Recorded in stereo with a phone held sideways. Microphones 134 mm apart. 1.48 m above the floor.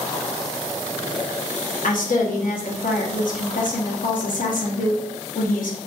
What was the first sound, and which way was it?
A woman speaking, 80° left.